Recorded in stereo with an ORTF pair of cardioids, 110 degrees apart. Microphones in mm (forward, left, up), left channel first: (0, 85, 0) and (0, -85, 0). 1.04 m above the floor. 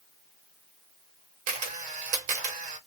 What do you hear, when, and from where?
1.5 s a camera shutter: 50° right, 1.2 m